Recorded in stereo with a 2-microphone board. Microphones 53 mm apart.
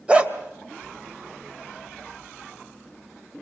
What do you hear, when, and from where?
0.1 s a dog barking: 20° right (ahead or behind), 2 m